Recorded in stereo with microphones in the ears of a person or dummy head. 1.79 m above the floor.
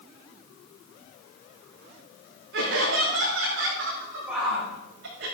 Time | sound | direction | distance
2.5 | laughter | 75° right (ahead or behind) | 4.5 m
4.3 | a shout | 5° right (ahead or behind) | 7 m